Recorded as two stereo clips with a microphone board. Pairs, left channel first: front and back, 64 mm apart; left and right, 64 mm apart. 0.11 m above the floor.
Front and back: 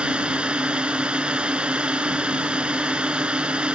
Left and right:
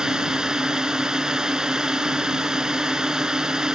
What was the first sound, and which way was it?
A drone, 145° right.